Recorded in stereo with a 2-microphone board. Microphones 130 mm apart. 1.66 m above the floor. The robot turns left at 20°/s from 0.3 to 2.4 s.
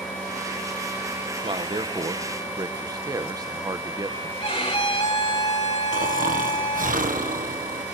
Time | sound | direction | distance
1.4 | a man speaking | 40° right (ahead or behind) | 0.8 m
4.4 | a violin | 45° left (ahead or behind) | 2.5 m
5.9 | snoring | 85° right | 1.4 m